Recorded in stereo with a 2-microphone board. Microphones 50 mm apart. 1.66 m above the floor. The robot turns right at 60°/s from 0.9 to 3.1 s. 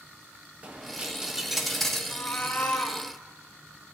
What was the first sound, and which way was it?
A dropped coin, 50° right.